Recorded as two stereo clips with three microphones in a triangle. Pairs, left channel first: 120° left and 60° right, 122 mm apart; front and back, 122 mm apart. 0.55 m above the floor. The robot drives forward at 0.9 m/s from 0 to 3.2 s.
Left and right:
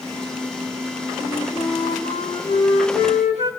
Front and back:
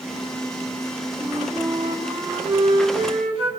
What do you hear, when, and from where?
1.2 s a flute: 120° left, 3.5 m; by 3.5 s 140° left, 5 m